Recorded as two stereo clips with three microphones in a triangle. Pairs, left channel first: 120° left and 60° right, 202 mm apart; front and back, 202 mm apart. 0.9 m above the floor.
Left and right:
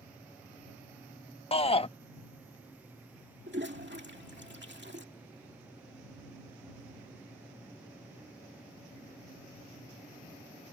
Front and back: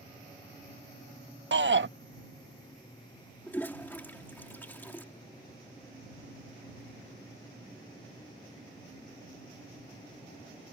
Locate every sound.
1.5 s a shout: 175° left
3.5 s a toilet flushing: 80° right